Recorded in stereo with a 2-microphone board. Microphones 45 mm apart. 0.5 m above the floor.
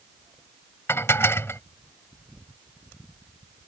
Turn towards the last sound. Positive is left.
turn(degrees=70)  # may be behind; listen again after turning